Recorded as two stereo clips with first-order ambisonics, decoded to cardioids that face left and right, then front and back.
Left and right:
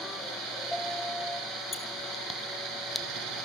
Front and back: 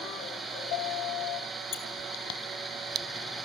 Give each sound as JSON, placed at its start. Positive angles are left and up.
{"t": 1.7, "sound": "a squeak", "azimuth_deg": 25, "distance_m": 2.5}